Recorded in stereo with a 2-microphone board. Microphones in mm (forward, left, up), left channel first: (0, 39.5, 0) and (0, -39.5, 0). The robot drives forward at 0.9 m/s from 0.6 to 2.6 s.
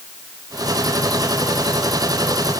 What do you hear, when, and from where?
Only background noise.